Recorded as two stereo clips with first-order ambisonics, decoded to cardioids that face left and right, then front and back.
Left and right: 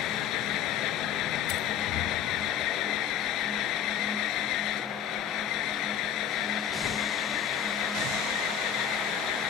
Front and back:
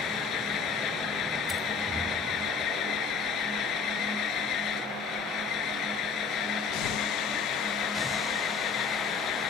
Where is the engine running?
50° left.